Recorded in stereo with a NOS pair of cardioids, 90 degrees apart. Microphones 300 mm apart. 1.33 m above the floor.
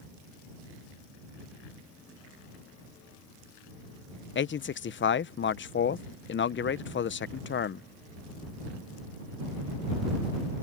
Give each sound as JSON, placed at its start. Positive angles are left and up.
{"t": 4.3, "sound": "a man speaking", "azimuth_deg": 40}